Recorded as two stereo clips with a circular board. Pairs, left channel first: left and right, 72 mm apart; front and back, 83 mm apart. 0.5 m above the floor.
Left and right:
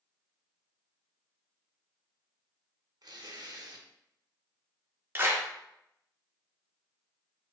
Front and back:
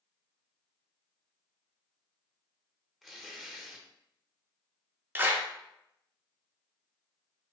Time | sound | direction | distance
3.0 | tearing paper | 90° right | 0.6 m
5.2 | a clap | 130° right | 0.5 m